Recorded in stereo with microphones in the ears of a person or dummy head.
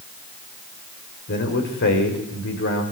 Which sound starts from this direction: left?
A man speaking, at 1.3 s.